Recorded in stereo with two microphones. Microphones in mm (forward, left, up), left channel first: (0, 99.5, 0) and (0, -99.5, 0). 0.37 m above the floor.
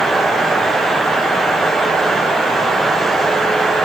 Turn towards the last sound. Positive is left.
No sound to turn to.